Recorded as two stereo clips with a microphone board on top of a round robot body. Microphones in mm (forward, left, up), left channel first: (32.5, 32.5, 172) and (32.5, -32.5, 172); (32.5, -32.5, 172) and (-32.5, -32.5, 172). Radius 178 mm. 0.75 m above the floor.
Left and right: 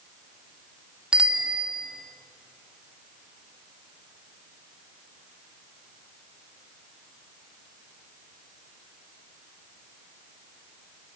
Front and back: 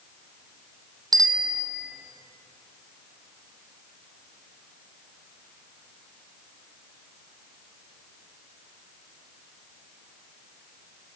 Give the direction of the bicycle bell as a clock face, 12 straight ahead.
6 o'clock.